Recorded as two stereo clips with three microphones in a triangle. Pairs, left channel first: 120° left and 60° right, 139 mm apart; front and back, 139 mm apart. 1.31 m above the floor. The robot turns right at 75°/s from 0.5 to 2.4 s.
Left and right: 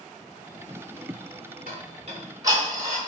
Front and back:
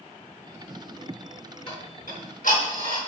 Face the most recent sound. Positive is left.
turn(degrees=5)